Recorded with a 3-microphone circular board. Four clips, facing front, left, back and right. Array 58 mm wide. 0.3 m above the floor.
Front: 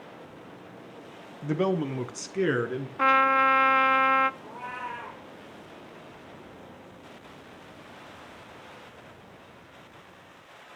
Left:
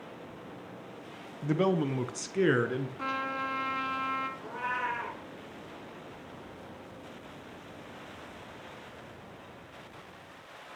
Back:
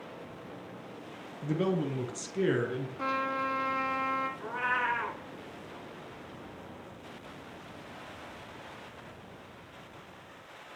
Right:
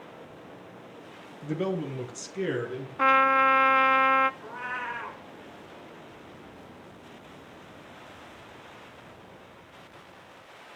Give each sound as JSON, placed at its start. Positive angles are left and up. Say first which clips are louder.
{"t": 1.4, "sound": "a man speaking", "louder": "left 3 dB, front 4 dB", "azimuth_deg": 45, "distance_m": 2.5}
{"t": 3.0, "sound": "a trumpet", "louder": "right 17 dB, front 12 dB", "azimuth_deg": -45, "distance_m": 1.1}
{"t": 4.4, "sound": "a cat meowing", "louder": "left 1 dB, back 6 dB", "azimuth_deg": -170, "distance_m": 6.5}